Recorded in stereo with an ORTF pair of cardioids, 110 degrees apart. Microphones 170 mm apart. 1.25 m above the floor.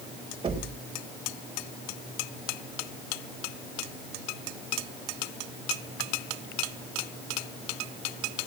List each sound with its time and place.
0.4 s knocking: 35° right, 4 m